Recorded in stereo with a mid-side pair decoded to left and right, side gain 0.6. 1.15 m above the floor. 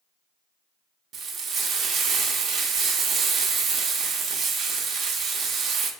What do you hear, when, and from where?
1.1 s frying: 55° right, 0.7 m